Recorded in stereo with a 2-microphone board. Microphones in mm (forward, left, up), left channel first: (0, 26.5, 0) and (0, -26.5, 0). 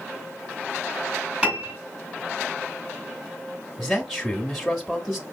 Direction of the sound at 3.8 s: Centre (ahead or behind).